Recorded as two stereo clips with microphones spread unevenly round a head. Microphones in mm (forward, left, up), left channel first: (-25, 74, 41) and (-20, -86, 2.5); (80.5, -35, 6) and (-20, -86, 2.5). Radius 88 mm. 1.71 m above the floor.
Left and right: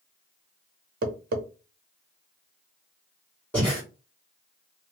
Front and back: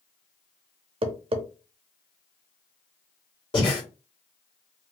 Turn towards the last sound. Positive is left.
turn(degrees=30)